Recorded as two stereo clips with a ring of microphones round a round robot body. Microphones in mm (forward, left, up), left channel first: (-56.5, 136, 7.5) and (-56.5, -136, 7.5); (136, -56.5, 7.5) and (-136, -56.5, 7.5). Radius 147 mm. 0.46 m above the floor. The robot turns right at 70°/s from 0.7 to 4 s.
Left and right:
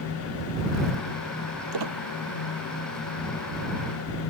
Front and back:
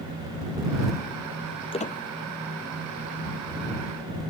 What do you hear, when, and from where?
1.7 s a squeak: 70° right; by 2.0 s 50° right